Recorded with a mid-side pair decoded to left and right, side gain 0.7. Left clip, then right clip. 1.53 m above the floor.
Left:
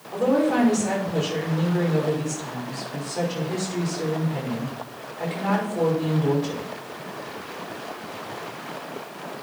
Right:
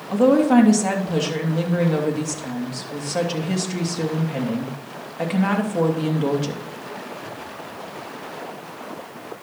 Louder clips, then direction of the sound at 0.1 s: Right 5 dB; 65° right.